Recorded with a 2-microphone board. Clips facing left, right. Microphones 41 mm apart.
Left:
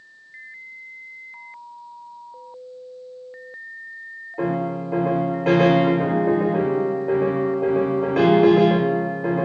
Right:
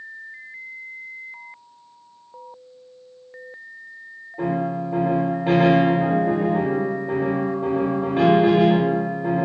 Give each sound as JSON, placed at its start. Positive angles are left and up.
{"t": 4.4, "sound": "a piano", "side_deg": 70, "distance_m": 2.0}